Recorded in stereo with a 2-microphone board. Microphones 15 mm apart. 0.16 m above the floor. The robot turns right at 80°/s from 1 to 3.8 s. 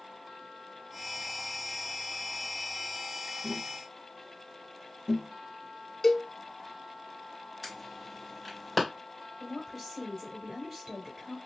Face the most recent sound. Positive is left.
turn(degrees=-10)  # may be behind; listen again after turning